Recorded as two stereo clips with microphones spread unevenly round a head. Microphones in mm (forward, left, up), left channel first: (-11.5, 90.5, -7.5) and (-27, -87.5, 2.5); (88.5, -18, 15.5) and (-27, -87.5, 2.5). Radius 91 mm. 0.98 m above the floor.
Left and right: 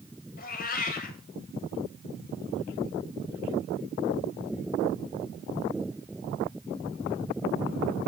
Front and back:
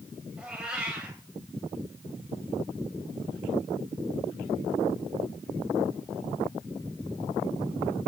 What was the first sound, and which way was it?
A cat meowing, 125° left.